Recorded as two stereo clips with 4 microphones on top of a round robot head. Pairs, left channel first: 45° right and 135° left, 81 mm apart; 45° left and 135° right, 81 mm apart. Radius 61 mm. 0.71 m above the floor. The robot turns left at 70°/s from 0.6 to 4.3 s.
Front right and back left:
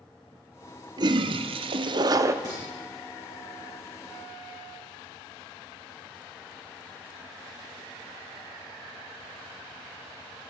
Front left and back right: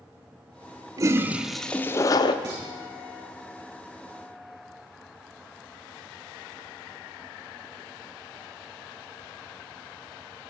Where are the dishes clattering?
175° right, 7.5 m; by 2.6 s 175° left, 7.5 m.